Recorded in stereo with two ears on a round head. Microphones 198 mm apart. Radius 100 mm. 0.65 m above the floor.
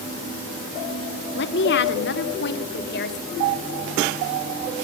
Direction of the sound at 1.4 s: 50° left (ahead or behind).